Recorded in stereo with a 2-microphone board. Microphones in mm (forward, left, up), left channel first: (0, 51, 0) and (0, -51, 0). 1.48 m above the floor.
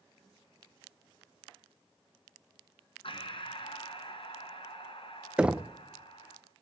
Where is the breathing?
60° left (ahead or behind), 3 m.